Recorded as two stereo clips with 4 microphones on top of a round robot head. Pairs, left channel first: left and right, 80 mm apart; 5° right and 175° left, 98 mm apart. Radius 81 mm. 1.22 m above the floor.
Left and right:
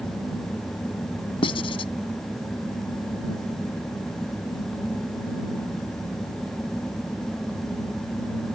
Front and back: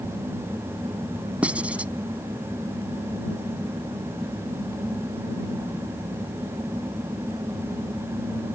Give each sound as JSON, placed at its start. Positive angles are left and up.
{"t": 1.4, "sound": "writing", "azimuth_deg": 100}